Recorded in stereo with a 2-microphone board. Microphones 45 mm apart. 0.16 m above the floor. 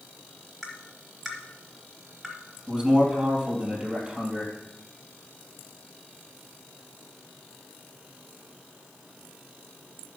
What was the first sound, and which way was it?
Tapping, centre (ahead or behind).